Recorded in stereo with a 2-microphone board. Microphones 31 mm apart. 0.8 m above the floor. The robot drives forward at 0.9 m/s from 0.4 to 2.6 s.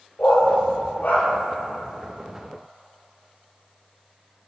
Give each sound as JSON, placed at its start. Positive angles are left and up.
{"t": 0.2, "sound": "a dog barking", "side_deg": 70, "distance_m": 3.5}